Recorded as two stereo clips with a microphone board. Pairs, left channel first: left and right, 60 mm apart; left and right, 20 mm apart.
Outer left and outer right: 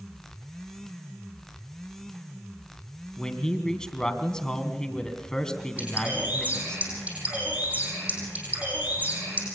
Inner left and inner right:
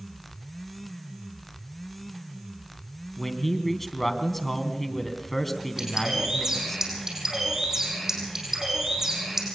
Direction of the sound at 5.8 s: 30° right (ahead or behind).